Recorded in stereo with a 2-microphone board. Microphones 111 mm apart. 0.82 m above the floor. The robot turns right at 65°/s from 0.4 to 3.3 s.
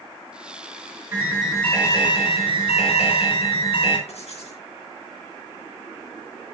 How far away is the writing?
About 3.5 m.